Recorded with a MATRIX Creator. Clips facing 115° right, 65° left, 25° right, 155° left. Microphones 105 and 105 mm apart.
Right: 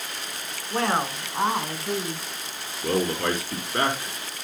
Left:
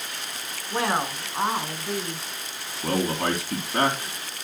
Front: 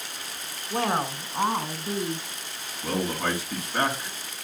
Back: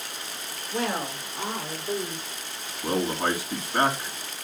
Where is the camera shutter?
No camera shutter in this recording.